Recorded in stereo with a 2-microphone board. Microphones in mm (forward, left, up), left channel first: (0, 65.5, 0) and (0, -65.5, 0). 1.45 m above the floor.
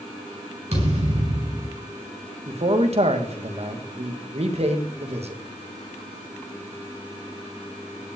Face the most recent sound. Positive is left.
turn(degrees=-50)  # may be behind; listen again after turning